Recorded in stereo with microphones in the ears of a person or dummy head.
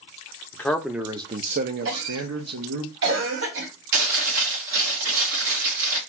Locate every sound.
0.5 s a man speaking: 15° left (ahead or behind), 0.6 m; by 2.9 s 85° right, 0.9 m
1.9 s a cough: 75° right (ahead or behind), 2 m
3.9 s chewing: 70° right (ahead or behind), 1.7 m